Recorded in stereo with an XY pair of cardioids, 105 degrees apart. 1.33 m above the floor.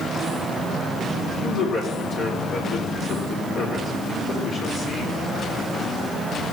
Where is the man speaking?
65° left, 3.5 m.